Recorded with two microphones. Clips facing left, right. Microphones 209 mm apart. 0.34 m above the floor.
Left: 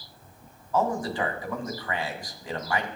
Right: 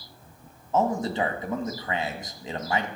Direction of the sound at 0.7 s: 25° right (ahead or behind).